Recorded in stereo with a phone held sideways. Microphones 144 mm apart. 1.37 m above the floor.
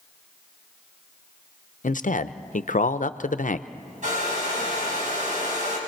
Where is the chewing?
No chewing in this recording.